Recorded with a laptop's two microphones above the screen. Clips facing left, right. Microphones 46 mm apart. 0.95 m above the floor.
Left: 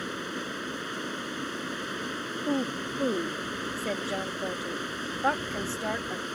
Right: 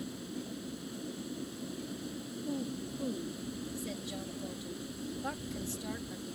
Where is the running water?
60° left (ahead or behind).